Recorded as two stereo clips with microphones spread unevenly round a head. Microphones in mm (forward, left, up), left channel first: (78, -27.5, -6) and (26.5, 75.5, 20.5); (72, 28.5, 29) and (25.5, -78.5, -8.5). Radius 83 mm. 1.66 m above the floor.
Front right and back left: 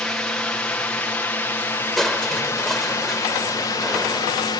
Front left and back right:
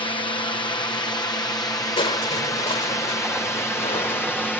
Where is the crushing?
30° left.